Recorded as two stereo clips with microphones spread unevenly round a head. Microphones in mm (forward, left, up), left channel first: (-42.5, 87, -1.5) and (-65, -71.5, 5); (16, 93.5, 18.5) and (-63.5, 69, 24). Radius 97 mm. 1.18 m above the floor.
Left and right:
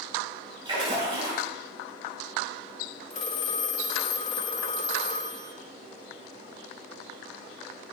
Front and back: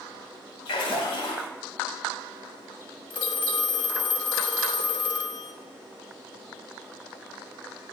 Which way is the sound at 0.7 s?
30° right.